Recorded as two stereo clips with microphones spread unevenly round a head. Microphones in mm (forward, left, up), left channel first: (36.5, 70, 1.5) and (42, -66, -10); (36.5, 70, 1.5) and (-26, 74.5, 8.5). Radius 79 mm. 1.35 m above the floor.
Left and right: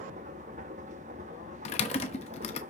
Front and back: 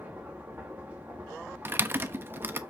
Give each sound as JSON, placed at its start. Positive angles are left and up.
{"t": 0.0, "sound": "a machine running", "azimuth_deg": -120, "distance_m": 1.0}
{"t": 1.6, "sound": "typing on a keyboard", "azimuth_deg": 135, "distance_m": 1.0}